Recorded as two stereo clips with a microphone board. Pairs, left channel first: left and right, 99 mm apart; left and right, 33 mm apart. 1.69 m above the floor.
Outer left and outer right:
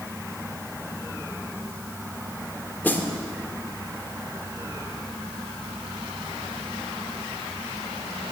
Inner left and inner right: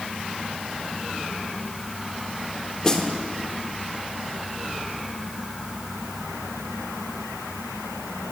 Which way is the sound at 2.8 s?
20° left (ahead or behind).